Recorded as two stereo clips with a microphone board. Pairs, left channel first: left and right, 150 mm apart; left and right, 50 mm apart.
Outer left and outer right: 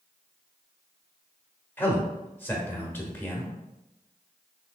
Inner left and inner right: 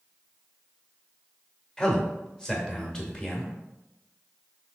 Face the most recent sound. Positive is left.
turn(degrees=15)  # may be behind; listen again after turning